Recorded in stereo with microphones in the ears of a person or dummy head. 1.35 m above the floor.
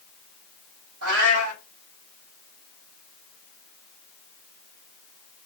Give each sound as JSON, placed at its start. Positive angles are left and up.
{"t": 1.0, "sound": "a cat meowing", "side_deg": -70, "distance_m": 1.7}